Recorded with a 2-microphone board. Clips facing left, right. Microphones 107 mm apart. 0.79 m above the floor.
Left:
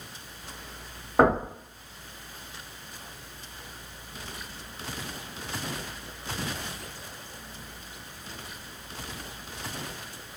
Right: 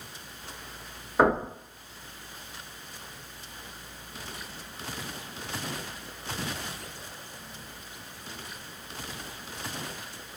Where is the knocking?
75° left (ahead or behind), 1.7 m.